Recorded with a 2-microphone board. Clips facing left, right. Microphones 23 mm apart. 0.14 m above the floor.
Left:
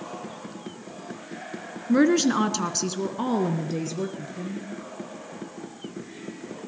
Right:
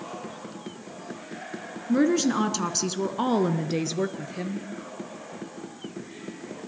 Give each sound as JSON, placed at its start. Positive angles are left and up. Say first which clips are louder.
{"t": 1.9, "sound": "a woman speaking", "louder": "left 2 dB", "side_deg": 30, "distance_m": 1.6}